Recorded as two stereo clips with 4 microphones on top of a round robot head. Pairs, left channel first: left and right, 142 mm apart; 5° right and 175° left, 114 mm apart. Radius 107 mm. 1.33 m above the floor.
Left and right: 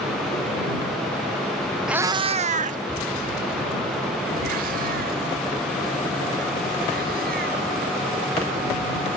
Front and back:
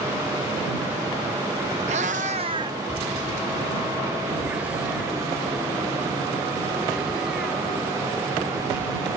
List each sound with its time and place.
1.9 s a cat meowing: 175° right; by 9.2 s 100° right